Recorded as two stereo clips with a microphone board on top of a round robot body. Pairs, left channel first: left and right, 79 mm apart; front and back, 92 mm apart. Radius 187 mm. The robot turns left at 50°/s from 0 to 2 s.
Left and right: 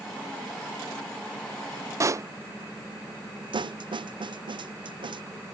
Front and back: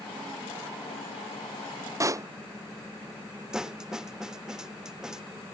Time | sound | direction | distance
2.0 | a pop | 130° right | ?
3.5 | a snare drum | 95° right | ?